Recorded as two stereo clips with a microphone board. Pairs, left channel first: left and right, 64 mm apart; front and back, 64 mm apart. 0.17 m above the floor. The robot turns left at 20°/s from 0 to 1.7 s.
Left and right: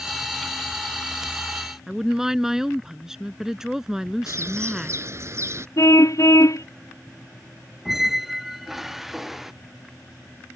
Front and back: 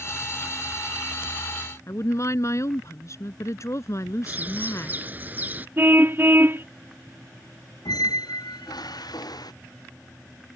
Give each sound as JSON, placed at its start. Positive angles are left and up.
{"t": 1.9, "sound": "a woman speaking", "azimuth_deg": -10}
{"t": 4.3, "sound": "a bird", "azimuth_deg": -120}
{"t": 5.8, "sound": "a car horn", "azimuth_deg": 125}
{"t": 7.8, "sound": "a squeak", "azimuth_deg": -5}